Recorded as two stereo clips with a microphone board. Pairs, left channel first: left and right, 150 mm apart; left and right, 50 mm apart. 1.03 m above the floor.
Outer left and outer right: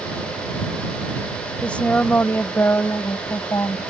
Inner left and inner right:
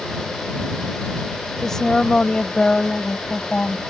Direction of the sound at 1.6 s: 5° left (ahead or behind).